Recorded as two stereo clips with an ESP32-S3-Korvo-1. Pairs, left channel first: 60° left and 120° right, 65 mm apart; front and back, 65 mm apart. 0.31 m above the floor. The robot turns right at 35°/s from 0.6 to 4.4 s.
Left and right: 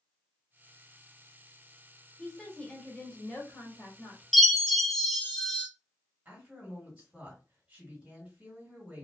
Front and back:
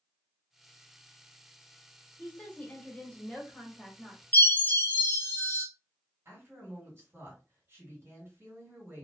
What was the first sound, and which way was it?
A woman speaking, 5° left.